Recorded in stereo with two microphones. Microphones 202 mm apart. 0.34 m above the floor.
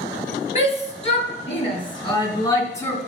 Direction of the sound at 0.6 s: 35° left (ahead or behind).